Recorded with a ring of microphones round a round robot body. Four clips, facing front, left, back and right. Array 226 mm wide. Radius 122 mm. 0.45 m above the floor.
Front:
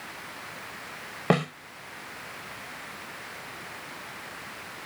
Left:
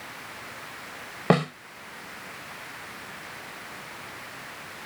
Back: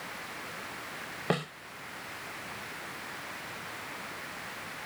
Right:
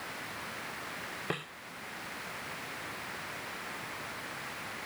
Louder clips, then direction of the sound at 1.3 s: Left 18 dB, front 7 dB; 65° left.